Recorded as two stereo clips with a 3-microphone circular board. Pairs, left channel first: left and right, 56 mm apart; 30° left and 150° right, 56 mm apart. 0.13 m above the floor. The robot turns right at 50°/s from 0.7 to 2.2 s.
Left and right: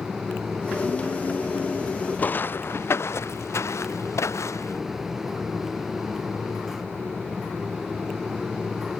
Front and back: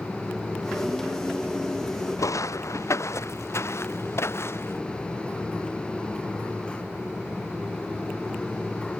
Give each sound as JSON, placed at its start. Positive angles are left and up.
{"t": 2.2, "sound": "footsteps", "azimuth_deg": 35}